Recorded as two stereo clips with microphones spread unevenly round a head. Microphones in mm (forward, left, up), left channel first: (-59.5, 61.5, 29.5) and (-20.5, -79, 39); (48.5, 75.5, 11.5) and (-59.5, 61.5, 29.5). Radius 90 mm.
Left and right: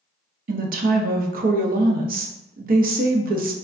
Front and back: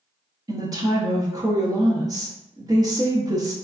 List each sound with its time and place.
0.5 s a woman speaking: 100° right, 0.6 m